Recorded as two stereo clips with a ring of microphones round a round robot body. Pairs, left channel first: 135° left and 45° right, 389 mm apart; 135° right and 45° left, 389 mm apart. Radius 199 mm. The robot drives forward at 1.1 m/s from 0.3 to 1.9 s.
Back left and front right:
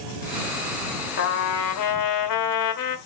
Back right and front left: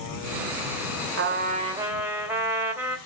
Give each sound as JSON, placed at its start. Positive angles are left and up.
{"t": 1.2, "sound": "a trumpet", "azimuth_deg": 85, "distance_m": 1.3}